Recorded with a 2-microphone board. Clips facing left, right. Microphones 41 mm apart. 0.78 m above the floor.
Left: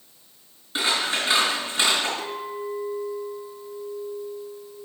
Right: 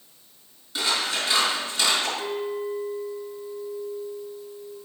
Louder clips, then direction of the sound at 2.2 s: Right 2 dB; 20° right (ahead or behind).